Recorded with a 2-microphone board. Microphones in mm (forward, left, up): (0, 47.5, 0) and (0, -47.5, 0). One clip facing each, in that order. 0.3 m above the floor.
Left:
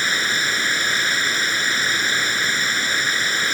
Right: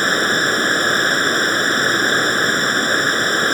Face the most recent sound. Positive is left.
turn(degrees=-45)  # may be behind; listen again after turning